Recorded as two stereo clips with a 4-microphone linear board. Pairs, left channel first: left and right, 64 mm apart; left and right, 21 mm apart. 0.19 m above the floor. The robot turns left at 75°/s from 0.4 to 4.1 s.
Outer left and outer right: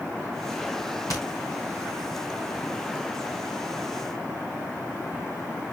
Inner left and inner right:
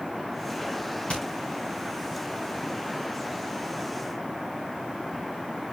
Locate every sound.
1.1 s hammering: 55° left (ahead or behind), 8 m; by 1.2 s 45° left (ahead or behind), 8 m